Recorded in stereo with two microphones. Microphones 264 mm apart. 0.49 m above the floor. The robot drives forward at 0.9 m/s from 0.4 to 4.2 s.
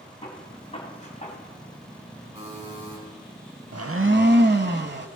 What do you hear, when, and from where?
0.2 s a gunshot: 20° left (ahead or behind), 2.5 m; by 1.4 s 30° left (ahead or behind), 1.8 m
2.4 s a buzzer: 25° right (ahead or behind), 4 m
3.7 s a blender: 70° right (ahead or behind), 0.6 m; by 5.1 s 40° right (ahead or behind), 0.8 m